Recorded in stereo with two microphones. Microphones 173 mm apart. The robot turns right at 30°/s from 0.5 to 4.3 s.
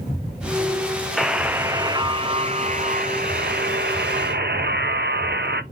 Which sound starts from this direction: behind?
A buzzer, at 1.2 s.